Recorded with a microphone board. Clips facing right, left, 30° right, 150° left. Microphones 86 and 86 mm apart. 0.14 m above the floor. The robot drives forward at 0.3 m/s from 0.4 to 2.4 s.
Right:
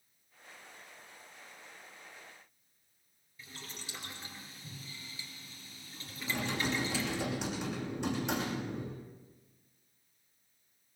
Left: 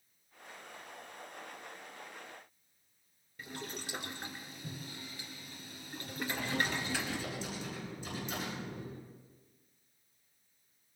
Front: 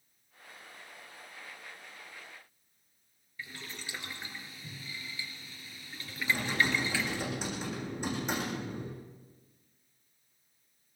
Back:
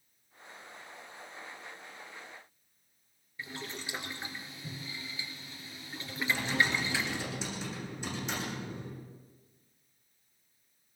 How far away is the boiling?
About 3 m.